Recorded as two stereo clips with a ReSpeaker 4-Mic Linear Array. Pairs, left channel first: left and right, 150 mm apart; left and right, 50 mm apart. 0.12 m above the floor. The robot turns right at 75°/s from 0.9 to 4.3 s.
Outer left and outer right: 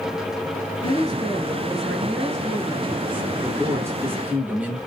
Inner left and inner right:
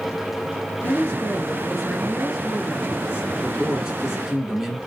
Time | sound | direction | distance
0.8 | a woman speaking | 110° left | 1.2 m
3.4 | a man speaking | 20° right (ahead or behind) | 1.1 m